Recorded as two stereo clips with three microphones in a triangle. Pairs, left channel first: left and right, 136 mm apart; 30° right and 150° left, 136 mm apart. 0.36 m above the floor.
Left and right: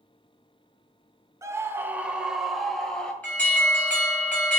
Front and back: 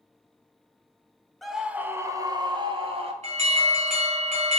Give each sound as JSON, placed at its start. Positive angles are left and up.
{"t": 1.4, "sound": "a scream", "azimuth_deg": -115, "distance_m": 0.9}
{"t": 3.2, "sound": "an alarm", "azimuth_deg": 170, "distance_m": 3.0}